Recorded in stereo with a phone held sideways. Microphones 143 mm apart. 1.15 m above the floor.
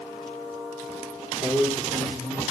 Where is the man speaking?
15° right (ahead or behind), 3 m; by 2.4 s 5° right (ahead or behind), 3.5 m.